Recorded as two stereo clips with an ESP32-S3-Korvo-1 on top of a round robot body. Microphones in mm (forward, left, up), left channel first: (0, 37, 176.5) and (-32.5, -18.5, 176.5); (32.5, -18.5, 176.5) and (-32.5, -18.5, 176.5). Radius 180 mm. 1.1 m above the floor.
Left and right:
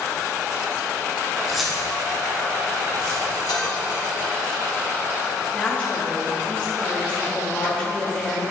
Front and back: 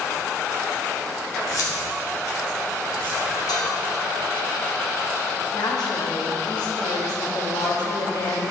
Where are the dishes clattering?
25° left, 1.7 m.